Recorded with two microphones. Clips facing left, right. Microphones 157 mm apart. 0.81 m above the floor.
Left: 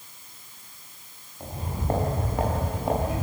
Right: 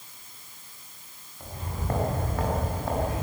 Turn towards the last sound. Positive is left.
turn(degrees=15)  # may be behind; listen again after turning